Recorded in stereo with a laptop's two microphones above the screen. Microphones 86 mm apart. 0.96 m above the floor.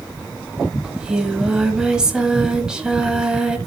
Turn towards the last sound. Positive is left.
turn(degrees=-10)  # may be behind; listen again after turning